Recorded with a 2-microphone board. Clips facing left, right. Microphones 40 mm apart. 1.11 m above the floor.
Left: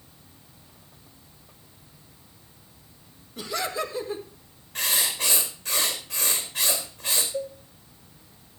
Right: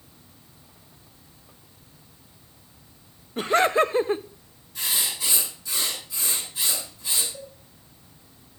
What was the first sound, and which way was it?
Laughter, 40° right (ahead or behind).